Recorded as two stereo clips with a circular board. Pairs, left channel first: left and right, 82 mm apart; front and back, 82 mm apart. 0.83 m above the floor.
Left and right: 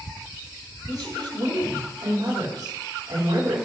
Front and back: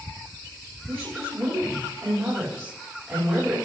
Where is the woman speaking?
125° right, 4 m.